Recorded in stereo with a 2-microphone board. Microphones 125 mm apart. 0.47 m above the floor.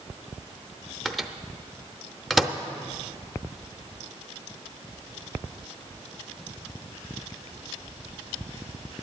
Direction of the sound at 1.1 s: Centre (ahead or behind).